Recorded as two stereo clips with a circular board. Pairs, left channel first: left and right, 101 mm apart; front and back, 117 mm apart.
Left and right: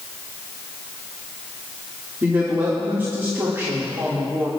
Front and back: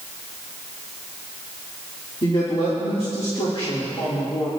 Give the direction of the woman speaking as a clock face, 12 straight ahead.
1 o'clock.